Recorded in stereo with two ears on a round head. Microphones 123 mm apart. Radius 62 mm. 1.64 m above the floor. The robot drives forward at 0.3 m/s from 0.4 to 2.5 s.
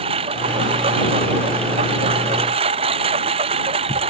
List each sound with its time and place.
0.0 s a lawn mower: 45° right (ahead or behind)